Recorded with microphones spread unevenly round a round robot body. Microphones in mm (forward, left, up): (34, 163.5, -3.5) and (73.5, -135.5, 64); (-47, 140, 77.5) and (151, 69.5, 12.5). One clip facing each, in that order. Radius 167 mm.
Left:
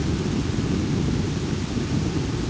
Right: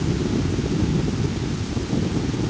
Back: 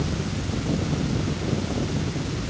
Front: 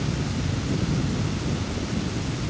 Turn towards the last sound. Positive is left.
No sound to turn to.